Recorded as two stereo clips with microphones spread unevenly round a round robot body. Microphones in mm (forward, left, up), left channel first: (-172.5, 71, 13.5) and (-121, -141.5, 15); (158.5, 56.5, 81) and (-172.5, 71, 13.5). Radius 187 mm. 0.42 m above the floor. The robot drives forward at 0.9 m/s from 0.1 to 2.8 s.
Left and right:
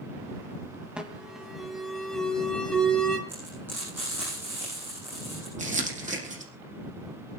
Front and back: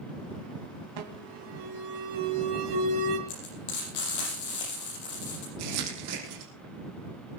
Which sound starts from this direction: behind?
An alarm, at 1.0 s.